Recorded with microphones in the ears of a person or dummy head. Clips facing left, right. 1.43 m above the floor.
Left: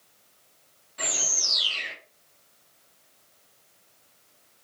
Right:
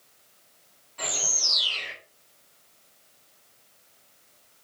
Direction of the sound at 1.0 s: 10° left (ahead or behind).